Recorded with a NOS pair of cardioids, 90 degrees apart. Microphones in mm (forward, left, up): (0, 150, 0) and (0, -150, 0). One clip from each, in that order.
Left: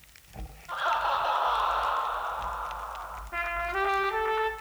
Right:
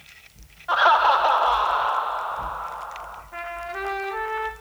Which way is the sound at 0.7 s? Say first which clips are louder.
Right 11 dB; 70° right.